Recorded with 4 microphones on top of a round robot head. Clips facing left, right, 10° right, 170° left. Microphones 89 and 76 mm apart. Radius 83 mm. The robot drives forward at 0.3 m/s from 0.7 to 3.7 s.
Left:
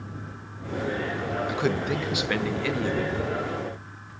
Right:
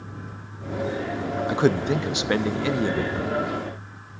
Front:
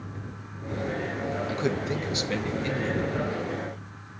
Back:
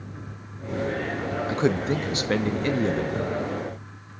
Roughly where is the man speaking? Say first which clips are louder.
Right 7 dB, back 7 dB; behind right.